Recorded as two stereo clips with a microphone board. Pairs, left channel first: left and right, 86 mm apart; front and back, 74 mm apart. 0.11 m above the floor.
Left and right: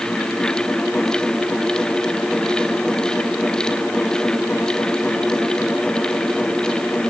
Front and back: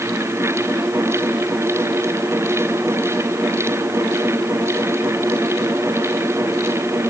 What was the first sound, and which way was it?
Only background noise.